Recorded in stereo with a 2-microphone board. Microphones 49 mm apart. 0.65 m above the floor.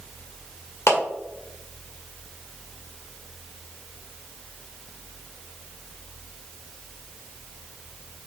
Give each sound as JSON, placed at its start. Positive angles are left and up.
{"t": 0.9, "sound": "a clap", "side_deg": 70, "distance_m": 1.6}